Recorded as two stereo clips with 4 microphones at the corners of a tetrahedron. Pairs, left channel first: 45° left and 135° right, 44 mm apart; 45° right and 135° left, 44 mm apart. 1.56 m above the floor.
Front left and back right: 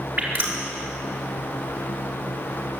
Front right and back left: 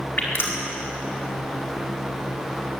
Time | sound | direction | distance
0.2 | dripping | 85° right | 4.5 m